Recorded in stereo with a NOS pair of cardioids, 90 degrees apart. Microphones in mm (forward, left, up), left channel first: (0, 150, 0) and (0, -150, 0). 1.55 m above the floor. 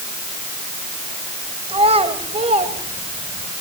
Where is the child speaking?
20° right, 4.5 m.